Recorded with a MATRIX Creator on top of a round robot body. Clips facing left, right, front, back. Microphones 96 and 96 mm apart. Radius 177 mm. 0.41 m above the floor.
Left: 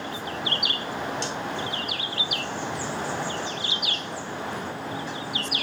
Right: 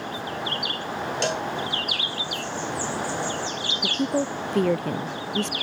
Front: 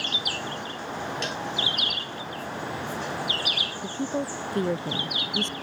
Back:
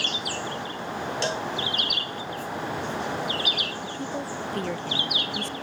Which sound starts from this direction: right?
A woman speaking, at 3.8 s.